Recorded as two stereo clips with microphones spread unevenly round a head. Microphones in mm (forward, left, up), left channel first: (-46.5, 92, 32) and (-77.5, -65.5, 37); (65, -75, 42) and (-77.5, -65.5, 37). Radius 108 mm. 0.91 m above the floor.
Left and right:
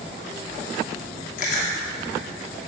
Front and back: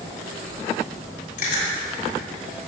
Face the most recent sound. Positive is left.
turn(degrees=40)